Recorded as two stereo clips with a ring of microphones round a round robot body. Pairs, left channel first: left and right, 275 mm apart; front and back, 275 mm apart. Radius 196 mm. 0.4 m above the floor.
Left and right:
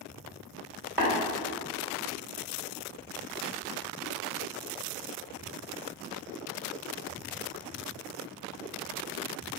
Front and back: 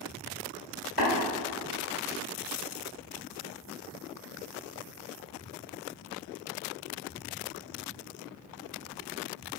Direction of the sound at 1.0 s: 10° right.